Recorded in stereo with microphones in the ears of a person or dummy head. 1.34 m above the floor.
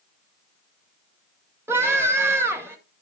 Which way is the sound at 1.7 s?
20° right (ahead or behind).